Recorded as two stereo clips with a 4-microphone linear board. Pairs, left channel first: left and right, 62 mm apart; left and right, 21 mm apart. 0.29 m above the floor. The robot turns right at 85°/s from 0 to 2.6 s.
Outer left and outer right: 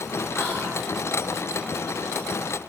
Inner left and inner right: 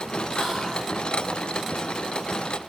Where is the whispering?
20° left, 1.8 m; by 0.9 s 65° left, 1.8 m.